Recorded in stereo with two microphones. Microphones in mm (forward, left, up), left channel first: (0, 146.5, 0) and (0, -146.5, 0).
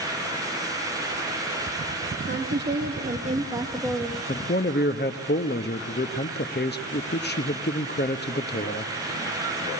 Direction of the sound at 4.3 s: 35° left (ahead or behind).